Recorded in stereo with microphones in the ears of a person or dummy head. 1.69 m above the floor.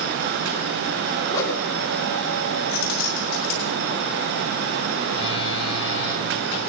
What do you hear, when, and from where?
1.3 s a whoosh: 20° left (ahead or behind), 1.7 m
2.7 s keys jangling: 50° left (ahead or behind), 3.5 m
5.1 s a phone buzzing: 30° left (ahead or behind), 5 m